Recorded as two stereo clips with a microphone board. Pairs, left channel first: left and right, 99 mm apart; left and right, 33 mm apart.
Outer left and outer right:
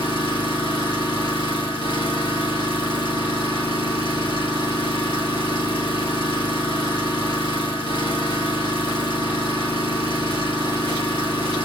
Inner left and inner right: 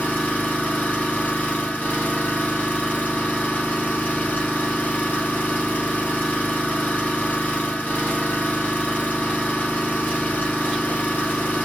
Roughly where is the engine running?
Left.